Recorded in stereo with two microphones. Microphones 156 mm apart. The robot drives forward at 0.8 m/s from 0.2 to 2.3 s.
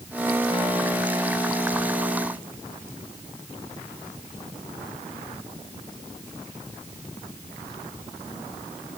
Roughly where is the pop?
No pop in this recording.